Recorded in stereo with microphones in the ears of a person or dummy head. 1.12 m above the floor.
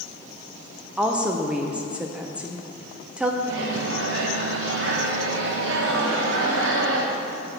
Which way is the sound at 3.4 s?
70° right (ahead or behind).